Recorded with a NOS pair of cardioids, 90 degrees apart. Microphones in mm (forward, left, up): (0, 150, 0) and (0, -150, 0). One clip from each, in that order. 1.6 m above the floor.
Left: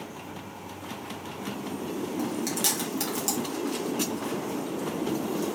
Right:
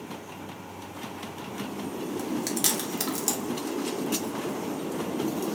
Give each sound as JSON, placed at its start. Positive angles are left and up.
{"t": 2.2, "sound": "chewing", "azimuth_deg": -15, "distance_m": 1.7}